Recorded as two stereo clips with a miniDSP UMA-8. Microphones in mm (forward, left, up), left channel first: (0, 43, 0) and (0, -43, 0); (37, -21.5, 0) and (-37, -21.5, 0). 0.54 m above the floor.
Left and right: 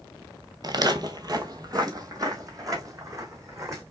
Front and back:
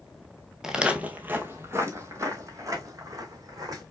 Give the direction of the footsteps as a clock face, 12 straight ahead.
3 o'clock.